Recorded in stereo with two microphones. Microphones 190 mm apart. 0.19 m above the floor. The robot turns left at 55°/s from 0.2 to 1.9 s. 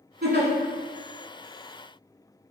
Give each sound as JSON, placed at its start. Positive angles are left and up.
{"t": 0.2, "sound": "a giggle", "side_deg": -55, "distance_m": 0.7}